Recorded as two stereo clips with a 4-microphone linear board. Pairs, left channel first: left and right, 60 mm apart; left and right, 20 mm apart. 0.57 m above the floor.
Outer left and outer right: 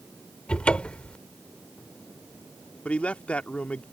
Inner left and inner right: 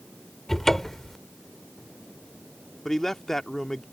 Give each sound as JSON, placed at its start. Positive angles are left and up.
{"t": 0.5, "sound": "a cupboard door", "side_deg": 20}
{"t": 2.9, "sound": "a man speaking", "side_deg": 20}